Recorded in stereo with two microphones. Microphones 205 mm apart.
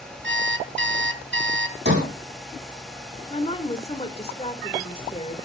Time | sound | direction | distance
0.2 | an alarm clock | 65° right (ahead or behind) | 1.4 m
1.9 | a sliding door | 55° right (ahead or behind) | 10 m
3.3 | a woman speaking | 30° left (ahead or behind) | 1.7 m